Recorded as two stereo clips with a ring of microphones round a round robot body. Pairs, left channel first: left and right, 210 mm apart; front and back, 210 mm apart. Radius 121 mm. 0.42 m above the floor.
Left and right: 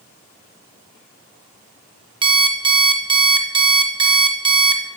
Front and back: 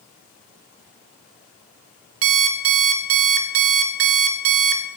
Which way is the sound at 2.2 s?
160° right.